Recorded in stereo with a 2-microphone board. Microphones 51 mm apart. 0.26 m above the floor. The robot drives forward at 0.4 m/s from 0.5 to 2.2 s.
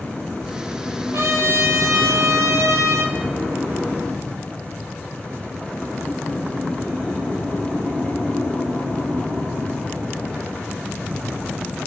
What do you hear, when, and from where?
1.1 s a trumpet: 60° right (ahead or behind), 1.1 m; by 3.1 s 80° right, 1.0 m